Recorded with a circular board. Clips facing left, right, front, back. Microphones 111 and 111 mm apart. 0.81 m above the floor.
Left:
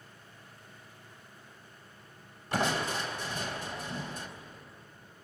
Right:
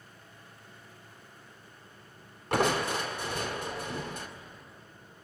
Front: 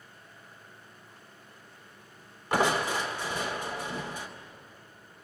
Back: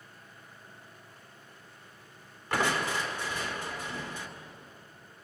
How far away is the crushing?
About 2 m.